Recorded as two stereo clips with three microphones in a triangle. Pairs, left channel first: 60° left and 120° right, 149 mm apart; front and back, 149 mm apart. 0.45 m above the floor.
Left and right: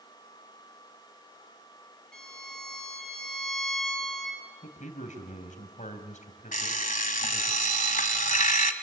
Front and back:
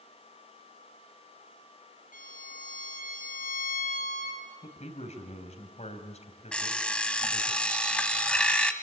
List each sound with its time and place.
2.1 s a violin: 25° right, 9.5 m
4.6 s a man speaking: 35° left, 3.5 m
6.5 s an alarm clock: 85° left, 1.6 m